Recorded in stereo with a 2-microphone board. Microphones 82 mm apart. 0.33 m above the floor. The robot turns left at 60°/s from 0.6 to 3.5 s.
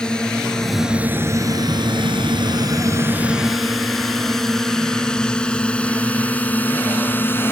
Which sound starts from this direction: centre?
A drone, at 0.0 s.